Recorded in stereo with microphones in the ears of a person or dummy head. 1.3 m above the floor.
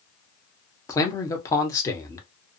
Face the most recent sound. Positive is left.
turn(degrees=20)  # may be behind; listen again after turning